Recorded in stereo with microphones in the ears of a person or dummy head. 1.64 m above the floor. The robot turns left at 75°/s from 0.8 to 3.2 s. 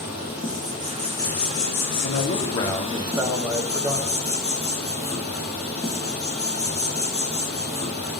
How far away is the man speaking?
About 1.0 m.